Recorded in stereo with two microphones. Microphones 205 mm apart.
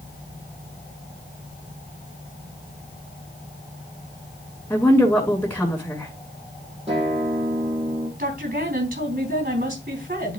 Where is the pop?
I don't hear a pop.